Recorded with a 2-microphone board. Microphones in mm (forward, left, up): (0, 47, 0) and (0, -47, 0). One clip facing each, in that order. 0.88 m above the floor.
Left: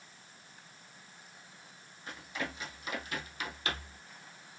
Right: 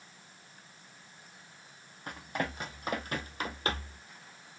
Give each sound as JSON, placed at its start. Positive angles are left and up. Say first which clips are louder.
{"t": 2.1, "sound": "running footsteps", "louder": "right 4 dB", "side_deg": -60, "distance_m": 2.5}